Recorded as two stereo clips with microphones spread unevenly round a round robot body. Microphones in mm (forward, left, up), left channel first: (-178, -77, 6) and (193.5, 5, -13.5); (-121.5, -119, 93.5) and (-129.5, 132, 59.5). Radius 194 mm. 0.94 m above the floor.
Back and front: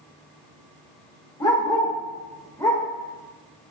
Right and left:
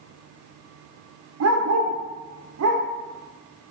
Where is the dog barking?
110° left, 1.2 m.